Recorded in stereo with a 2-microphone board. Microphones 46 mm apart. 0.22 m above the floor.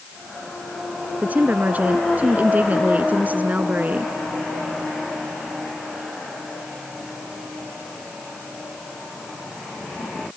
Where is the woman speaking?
35° right (ahead or behind).